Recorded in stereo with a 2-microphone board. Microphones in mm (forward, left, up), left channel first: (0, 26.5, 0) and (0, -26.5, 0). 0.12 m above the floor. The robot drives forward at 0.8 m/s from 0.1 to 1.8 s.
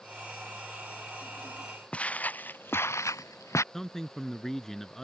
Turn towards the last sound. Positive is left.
turn(degrees=10)  # may be behind; listen again after turning